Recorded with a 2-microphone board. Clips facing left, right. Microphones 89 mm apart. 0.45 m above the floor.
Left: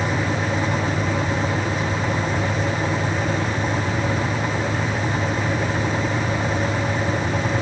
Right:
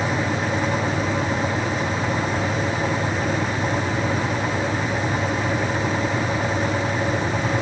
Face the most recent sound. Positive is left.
No sound to turn to.